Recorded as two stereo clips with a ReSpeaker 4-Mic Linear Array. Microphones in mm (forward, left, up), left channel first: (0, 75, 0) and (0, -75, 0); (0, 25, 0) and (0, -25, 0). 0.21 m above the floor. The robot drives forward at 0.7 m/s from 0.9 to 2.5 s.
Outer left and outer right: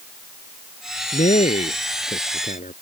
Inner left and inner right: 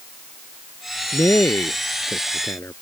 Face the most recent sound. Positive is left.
turn(degrees=60)  # may be behind; listen again after turning